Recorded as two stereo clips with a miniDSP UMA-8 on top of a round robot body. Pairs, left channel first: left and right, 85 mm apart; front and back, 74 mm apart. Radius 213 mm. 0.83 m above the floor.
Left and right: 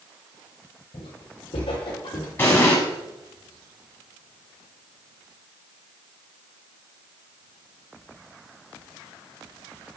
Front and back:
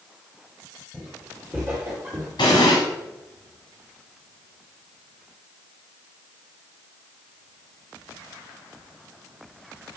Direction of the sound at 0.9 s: 85° left.